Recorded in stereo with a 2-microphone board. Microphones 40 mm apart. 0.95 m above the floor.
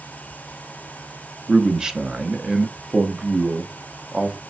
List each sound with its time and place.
1.5 s a man speaking: 20° right (ahead or behind), 0.7 m